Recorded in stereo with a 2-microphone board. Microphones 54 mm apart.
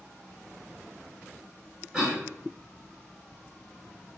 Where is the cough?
15° right (ahead or behind), 1.3 m.